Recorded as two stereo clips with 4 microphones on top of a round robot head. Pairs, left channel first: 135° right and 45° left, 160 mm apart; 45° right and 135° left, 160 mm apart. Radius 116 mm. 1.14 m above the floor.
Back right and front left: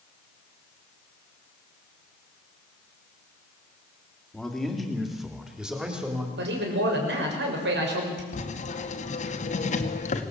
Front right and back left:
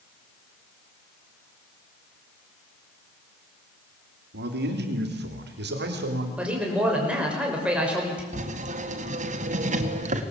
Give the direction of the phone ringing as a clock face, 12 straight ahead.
No phone ringing in this recording.